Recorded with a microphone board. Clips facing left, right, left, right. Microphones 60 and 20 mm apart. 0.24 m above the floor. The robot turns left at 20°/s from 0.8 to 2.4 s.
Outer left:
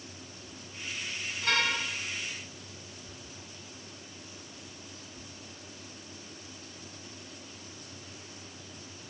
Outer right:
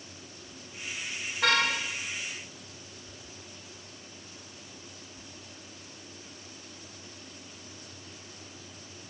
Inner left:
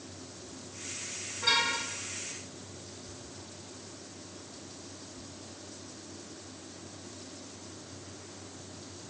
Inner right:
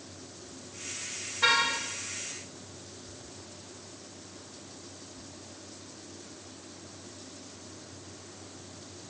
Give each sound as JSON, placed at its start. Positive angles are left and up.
{"t": 1.4, "sound": "a car horn", "side_deg": -65, "distance_m": 7.5}